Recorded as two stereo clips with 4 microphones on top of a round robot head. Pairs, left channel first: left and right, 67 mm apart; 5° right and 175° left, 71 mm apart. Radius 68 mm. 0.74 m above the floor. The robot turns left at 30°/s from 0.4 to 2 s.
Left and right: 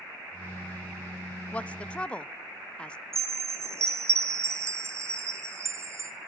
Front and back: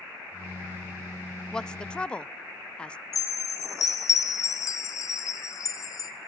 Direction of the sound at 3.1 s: 45° right.